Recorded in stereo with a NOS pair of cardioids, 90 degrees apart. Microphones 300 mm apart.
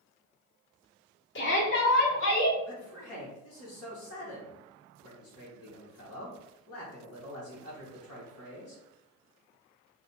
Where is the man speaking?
50° left, 1.5 m.